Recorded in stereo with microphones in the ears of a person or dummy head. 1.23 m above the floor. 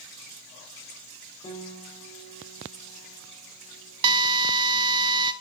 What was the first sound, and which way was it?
A piano, 25° left (ahead or behind).